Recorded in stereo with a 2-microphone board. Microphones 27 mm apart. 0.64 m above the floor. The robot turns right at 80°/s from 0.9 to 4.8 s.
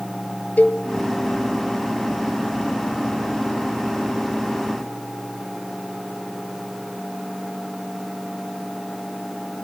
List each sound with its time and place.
0.6 s a cowbell: 65° left (ahead or behind), 0.8 m